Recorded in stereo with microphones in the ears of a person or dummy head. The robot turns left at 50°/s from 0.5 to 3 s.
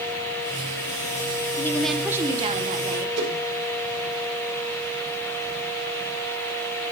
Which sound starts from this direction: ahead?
A woman speaking, at 1.6 s.